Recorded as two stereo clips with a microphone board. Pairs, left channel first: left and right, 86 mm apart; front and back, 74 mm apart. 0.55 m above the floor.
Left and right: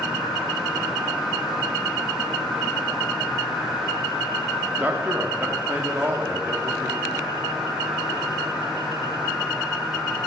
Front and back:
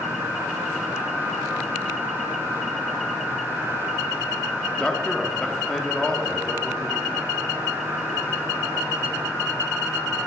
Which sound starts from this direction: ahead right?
A man speaking, at 4.8 s.